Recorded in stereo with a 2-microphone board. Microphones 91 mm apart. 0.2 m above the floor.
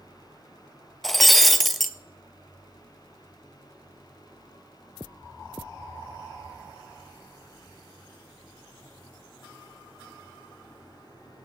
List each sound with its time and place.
1.0 s breaking glass: centre (ahead or behind), 0.8 m